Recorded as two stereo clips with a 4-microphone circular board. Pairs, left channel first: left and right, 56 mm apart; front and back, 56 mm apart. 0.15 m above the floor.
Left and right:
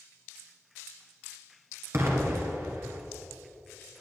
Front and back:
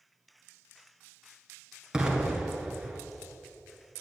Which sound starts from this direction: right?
An explosion, at 1.9 s.